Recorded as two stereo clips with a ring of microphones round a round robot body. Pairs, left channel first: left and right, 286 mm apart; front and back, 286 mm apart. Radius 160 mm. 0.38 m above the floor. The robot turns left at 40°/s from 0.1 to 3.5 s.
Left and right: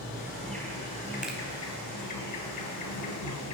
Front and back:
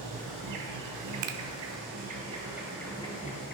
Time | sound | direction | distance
0.0 | an insect | 165° right | 2 m
1.2 | a finger snap | 175° right | 1.2 m